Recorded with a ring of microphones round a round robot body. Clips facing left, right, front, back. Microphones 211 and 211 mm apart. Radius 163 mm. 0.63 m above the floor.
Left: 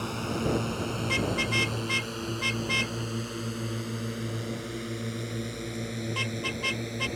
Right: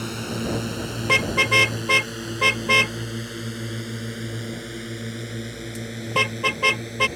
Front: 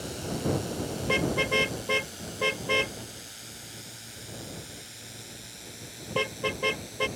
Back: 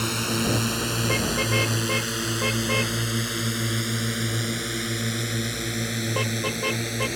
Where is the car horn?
80° right.